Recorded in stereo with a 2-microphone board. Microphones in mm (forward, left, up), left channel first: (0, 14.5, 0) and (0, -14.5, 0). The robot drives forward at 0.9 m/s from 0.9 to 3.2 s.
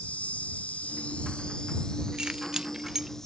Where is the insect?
60° left (ahead or behind); by 3.3 s 20° left (ahead or behind).